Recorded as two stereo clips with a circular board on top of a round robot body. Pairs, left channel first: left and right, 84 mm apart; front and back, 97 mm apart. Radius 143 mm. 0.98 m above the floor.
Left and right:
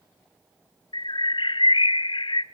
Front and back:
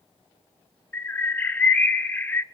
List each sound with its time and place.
0.9 s a bird: 70° left, 0.7 m